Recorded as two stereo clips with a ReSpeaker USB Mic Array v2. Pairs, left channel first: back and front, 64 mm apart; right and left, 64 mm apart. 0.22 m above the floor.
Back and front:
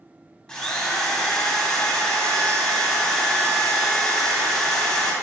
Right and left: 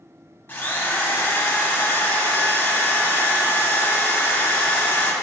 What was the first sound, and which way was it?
A drill, 110° right.